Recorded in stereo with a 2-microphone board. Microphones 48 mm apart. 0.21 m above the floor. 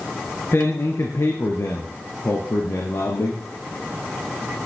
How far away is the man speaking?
About 2.5 m.